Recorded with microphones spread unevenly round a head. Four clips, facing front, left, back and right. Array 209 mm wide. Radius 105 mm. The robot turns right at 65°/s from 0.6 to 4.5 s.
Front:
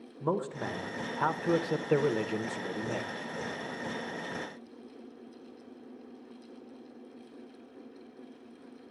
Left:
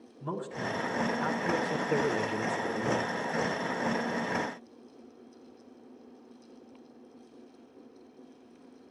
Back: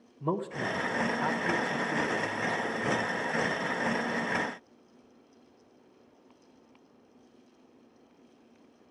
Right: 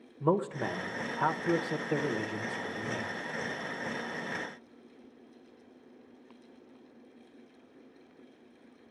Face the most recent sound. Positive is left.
turn(degrees=180)